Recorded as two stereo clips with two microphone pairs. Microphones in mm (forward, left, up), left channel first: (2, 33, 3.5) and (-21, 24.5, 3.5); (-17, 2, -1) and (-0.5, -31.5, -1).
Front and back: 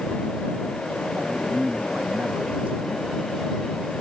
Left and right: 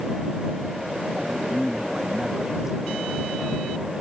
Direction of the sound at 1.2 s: 145° right.